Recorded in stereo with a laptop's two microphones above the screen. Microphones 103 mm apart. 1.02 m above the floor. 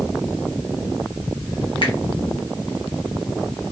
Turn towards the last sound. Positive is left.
turn(degrees=55)  # may be behind; listen again after turning